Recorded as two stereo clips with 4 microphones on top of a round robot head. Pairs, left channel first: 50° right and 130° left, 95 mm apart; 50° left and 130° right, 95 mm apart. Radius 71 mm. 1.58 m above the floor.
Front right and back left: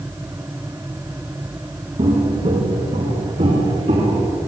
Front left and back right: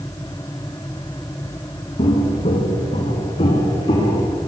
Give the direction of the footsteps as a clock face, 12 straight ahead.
9 o'clock.